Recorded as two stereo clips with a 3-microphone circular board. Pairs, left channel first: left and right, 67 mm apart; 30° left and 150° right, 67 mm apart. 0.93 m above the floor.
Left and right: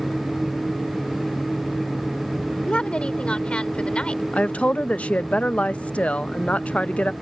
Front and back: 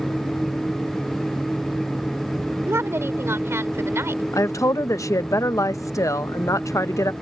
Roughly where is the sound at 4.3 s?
Ahead left.